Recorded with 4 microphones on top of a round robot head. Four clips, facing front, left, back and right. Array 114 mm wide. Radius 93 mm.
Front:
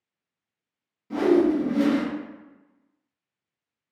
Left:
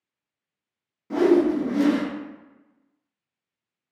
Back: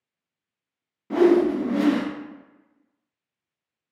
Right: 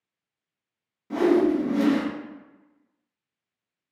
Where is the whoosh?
165° left, 0.6 m.